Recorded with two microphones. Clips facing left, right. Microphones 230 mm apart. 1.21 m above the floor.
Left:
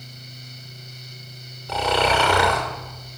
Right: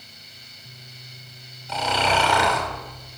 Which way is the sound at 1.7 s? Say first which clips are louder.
Left 3 dB; 65° left (ahead or behind).